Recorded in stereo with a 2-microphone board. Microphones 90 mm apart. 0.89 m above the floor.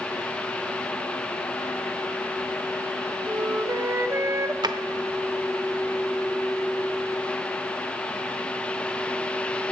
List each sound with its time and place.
3.3 s a flute: 30° right (ahead or behind), 0.7 m
4.6 s a drawer: 50° right (ahead or behind), 0.7 m